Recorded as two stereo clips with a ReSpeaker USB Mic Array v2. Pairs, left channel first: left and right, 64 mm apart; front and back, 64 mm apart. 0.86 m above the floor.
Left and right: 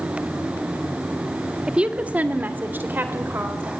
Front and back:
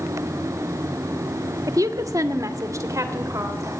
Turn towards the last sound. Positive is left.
turn(degrees=-145)